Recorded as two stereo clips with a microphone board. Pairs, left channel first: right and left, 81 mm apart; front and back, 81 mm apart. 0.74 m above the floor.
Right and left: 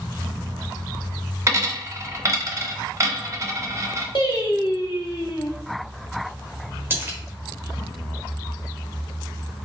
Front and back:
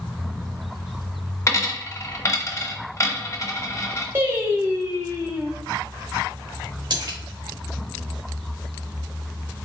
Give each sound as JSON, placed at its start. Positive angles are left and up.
{"t": 1.5, "sound": "a dropped coin", "azimuth_deg": 45, "distance_m": 0.6}
{"t": 4.2, "sound": "singing", "azimuth_deg": -120, "distance_m": 0.9}
{"t": 6.9, "sound": "a splash", "azimuth_deg": 155, "distance_m": 0.8}